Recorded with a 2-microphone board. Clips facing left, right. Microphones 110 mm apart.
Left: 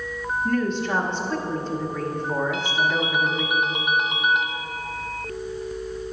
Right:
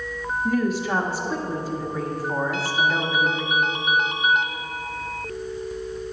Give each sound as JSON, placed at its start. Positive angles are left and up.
{"t": 0.5, "sound": "a woman speaking", "side_deg": -10, "distance_m": 0.8}
{"t": 2.5, "sound": "a ringtone", "side_deg": 0, "distance_m": 0.6}